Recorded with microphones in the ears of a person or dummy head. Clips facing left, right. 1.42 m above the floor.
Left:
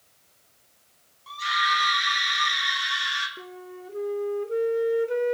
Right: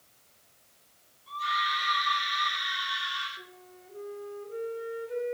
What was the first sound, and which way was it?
A scream, 65° left (ahead or behind).